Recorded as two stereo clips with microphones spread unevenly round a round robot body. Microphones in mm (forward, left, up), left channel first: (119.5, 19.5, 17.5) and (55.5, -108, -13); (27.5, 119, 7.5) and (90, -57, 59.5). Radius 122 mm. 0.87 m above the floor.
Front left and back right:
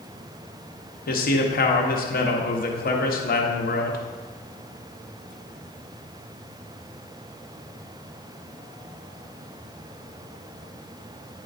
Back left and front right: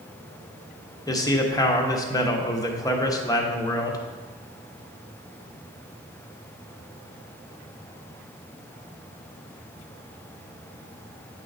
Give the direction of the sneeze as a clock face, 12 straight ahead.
No sneeze in this recording.